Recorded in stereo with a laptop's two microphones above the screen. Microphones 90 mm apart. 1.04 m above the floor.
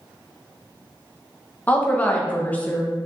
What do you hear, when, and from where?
1.7 s a woman speaking: 15° left (ahead or behind), 0.6 m